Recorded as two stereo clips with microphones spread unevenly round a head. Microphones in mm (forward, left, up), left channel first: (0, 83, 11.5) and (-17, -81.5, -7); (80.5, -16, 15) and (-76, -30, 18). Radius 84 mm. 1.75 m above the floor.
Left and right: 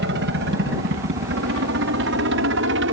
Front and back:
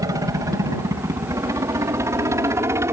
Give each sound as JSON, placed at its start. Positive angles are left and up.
{"t": 0.0, "sound": "a helicopter", "azimuth_deg": -105}